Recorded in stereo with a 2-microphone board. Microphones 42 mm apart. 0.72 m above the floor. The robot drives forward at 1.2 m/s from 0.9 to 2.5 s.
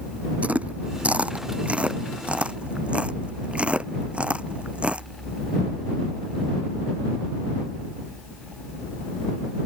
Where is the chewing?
35° right (ahead or behind); by 5.1 s 30° right (ahead or behind).